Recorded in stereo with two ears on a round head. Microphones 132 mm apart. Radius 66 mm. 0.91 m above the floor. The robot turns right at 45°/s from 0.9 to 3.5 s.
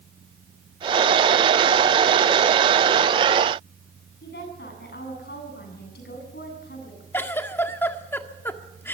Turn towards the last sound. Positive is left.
turn(degrees=15)  # may be behind; listen again after turning